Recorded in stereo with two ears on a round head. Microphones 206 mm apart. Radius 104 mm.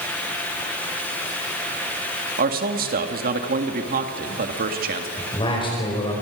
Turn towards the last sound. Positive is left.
turn(degrees=25)  # may be behind; listen again after turning